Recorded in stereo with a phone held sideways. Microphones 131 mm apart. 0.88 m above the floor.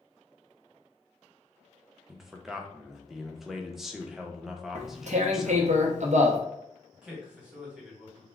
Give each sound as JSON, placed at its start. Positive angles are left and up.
{"t": 2.1, "sound": "a man speaking", "side_deg": -5, "distance_m": 0.6}
{"t": 4.8, "sound": "tearing paper", "side_deg": -65, "distance_m": 0.6}
{"t": 6.9, "sound": "a man speaking", "side_deg": -5, "distance_m": 1.3}